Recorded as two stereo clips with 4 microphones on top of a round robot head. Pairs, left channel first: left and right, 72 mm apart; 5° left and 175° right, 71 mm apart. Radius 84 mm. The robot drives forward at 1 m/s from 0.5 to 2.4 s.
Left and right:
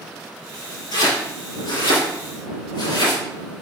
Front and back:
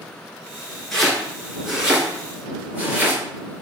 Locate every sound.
0.9 s chopping: 90° left, 3 m; by 3.2 s 115° left, 3.5 m